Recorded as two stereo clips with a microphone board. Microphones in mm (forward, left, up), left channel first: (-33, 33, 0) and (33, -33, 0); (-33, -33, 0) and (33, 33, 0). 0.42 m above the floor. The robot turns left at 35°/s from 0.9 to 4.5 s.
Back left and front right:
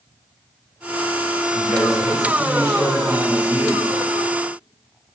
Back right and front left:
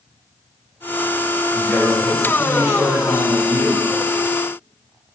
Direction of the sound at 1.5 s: 155° left.